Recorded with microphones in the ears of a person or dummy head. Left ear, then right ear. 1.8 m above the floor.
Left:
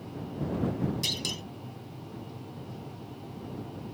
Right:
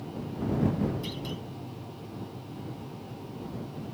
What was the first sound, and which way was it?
A clunk, 50° left (ahead or behind).